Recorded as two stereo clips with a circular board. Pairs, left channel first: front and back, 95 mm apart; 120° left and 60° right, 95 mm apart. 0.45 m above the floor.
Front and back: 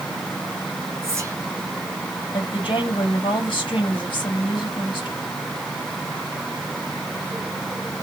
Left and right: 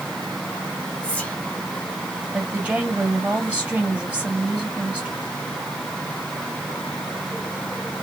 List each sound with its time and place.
1.0 s whispering: straight behind, 1.3 m
2.3 s a woman speaking: 15° left, 2 m